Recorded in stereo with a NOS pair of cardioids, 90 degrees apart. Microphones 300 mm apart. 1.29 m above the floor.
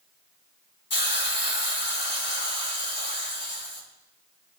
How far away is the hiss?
About 4 m.